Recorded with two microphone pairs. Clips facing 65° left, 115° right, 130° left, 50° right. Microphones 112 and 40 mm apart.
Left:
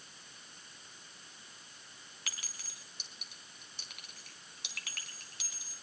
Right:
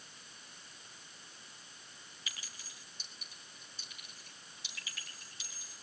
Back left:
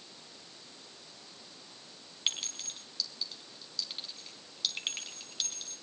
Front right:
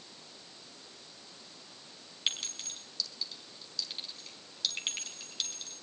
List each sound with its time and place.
2.3 s a clink: 40° left, 4 m